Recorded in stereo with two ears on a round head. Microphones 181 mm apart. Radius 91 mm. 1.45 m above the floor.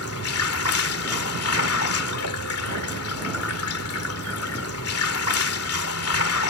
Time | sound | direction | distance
0.0 | running water | 80° left | ?